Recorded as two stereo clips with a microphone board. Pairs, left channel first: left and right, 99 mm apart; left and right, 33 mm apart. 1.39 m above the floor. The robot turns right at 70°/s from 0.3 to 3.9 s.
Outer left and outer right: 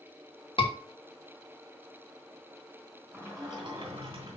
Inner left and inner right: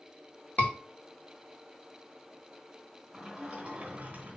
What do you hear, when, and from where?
0.6 s a scream: 60° left (ahead or behind), 2.5 m; by 0.7 s 50° left (ahead or behind), 2.5 m
3.1 s a sliding door: 160° right, 3 m; by 4.4 s 105° right, 3 m